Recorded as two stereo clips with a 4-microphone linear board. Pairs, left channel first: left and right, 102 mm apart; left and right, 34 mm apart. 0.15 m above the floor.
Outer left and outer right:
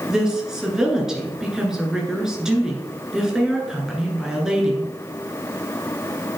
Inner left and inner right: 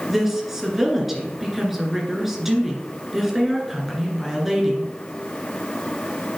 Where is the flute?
I don't hear a flute.